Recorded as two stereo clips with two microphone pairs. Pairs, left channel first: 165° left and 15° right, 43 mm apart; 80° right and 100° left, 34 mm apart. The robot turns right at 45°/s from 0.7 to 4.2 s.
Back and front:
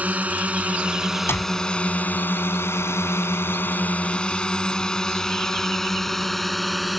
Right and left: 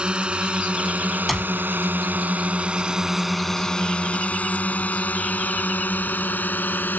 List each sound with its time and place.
0.0 s a drone: 40° left; by 7.0 s 105° right
1.3 s a clap: 170° right; by 1.5 s 160° right